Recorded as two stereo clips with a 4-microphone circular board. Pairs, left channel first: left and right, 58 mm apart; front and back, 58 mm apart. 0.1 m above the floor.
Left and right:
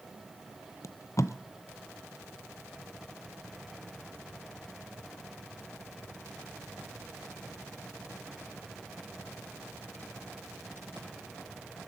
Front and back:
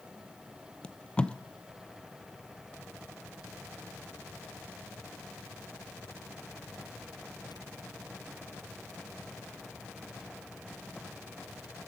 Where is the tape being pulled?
70° left, 0.5 m.